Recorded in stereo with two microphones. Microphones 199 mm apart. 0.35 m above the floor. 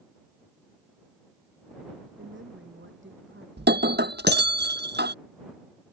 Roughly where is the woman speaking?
Right.